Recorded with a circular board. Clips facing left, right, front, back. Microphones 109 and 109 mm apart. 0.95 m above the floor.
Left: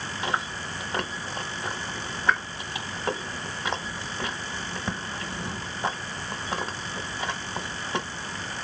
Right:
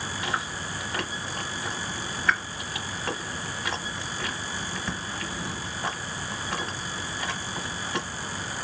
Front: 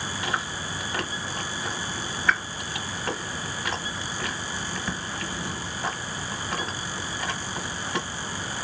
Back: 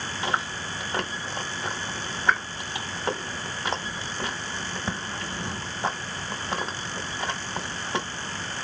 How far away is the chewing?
About 0.9 m.